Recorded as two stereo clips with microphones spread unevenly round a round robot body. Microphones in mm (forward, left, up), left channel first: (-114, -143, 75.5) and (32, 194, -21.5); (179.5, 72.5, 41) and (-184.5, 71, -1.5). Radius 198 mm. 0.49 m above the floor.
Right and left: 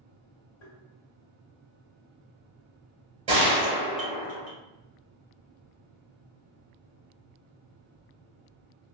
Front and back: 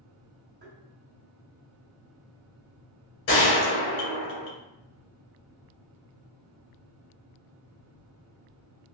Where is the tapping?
120° right, 1.8 m.